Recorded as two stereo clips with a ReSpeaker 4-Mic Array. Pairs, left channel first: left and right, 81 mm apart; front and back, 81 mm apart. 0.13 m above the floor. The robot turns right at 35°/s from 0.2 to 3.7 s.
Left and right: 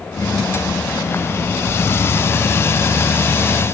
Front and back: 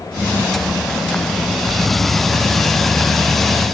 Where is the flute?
I don't hear a flute.